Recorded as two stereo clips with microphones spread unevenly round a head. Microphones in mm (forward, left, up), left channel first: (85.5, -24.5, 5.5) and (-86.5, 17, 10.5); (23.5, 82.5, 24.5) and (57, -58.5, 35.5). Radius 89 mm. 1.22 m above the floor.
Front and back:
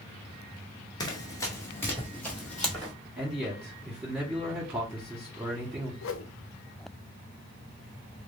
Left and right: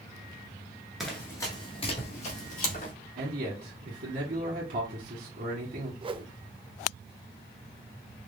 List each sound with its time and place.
1.0 s running footsteps: straight ahead, 1.2 m; by 2.9 s 75° left, 3 m
3.2 s a man speaking: 110° right, 1.4 m
6.0 s a whoosh: 20° right, 0.6 m